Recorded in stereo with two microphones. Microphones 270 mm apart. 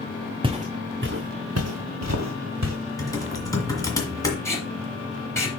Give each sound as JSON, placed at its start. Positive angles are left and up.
{"t": 0.4, "sound": "footsteps", "side_deg": -20, "distance_m": 0.9}
{"t": 3.0, "sound": "typing on a keyboard", "side_deg": 10, "distance_m": 1.8}
{"t": 4.5, "sound": "tape being pulled", "side_deg": 10, "distance_m": 2.5}